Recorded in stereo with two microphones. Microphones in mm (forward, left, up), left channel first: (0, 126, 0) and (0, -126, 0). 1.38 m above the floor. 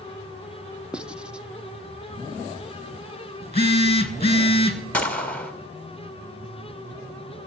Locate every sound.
0.9 s writing: 5° right (ahead or behind), 0.5 m
3.4 s a phone buzzing: 25° left (ahead or behind), 1.2 m
4.9 s a gunshot: 5° left (ahead or behind), 1.7 m